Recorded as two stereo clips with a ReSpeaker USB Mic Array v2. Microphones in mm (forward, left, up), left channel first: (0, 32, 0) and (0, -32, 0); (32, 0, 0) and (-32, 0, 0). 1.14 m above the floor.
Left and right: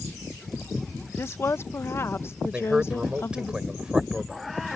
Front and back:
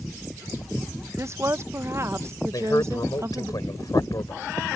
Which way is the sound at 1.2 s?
140° left.